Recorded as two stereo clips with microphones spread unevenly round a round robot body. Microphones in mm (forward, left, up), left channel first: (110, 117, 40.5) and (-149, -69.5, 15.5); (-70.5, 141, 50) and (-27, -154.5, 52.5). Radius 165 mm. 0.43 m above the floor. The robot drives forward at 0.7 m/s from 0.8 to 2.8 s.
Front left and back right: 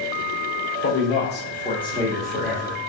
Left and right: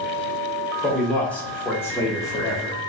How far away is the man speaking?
About 1.3 m.